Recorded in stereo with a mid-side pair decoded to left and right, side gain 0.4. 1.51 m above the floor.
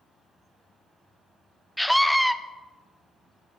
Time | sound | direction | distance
1.8 | a scream | straight ahead | 0.9 m